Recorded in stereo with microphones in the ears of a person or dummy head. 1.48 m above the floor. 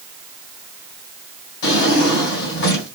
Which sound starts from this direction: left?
A drawer, at 1.6 s.